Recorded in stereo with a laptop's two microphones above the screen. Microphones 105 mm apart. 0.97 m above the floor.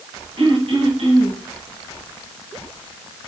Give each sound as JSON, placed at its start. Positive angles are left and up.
{"t": 0.4, "sound": "throat clearing", "side_deg": -55, "distance_m": 2.0}